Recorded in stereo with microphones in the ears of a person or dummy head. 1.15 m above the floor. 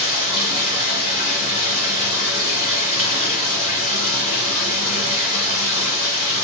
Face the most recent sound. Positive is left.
turn(degrees=65)  # may be behind; listen again after turning